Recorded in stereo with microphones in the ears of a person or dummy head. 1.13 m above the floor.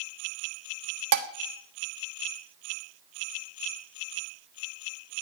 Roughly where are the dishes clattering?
Right.